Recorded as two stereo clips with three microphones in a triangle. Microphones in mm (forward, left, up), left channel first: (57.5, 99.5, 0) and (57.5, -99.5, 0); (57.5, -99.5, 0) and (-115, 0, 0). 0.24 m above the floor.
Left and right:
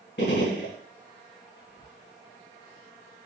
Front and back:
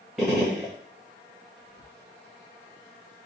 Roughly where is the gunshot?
Ahead left.